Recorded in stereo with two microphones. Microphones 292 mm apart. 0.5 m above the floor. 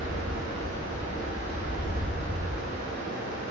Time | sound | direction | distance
0.0 | running water | 75° right (ahead or behind) | 1.8 m